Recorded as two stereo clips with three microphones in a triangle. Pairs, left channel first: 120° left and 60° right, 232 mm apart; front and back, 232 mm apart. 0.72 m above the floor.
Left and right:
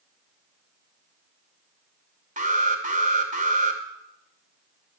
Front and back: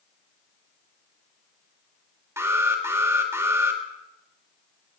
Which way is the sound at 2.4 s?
105° right.